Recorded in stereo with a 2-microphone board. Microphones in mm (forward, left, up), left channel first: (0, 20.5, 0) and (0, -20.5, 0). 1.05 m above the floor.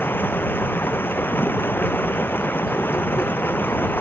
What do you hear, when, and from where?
0.0 s running water: 65° left (ahead or behind)